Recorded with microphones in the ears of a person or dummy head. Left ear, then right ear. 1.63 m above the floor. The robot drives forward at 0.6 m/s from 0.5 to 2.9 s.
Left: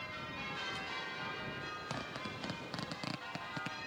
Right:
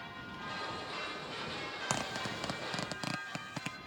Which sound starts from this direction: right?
A zipper, at 1.9 s.